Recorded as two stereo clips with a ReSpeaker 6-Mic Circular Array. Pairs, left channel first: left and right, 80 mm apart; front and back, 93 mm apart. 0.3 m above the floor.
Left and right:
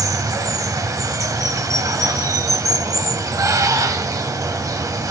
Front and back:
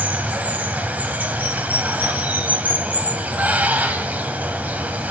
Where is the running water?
115° right, 1.2 m.